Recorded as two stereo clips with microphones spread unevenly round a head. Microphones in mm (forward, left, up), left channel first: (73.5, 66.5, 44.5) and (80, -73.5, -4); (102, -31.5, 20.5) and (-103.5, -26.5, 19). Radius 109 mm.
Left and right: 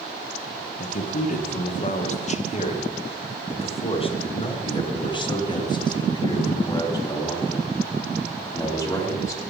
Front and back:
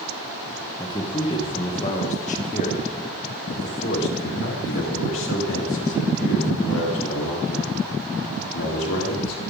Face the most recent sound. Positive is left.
turn(degrees=25)